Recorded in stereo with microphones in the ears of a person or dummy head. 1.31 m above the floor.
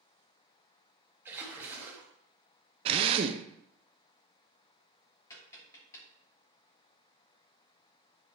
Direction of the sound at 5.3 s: 15° left (ahead or behind).